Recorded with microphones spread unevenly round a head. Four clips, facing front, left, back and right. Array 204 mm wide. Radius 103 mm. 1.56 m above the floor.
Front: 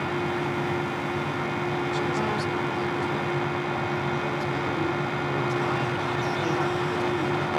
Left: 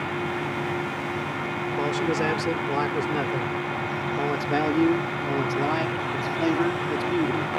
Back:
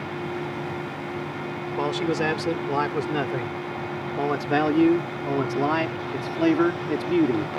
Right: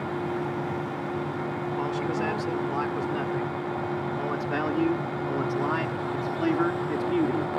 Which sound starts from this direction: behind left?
A man speaking, at 1.8 s.